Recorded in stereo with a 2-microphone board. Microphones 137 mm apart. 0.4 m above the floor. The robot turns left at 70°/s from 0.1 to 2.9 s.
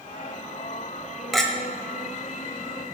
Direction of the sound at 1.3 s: Centre (ahead or behind).